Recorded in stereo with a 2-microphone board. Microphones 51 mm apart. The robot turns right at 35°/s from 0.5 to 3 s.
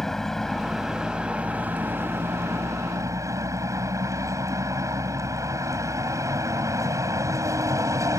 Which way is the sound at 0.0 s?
175° left.